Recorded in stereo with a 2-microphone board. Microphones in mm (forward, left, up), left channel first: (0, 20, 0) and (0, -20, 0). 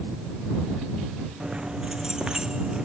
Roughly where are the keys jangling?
Right.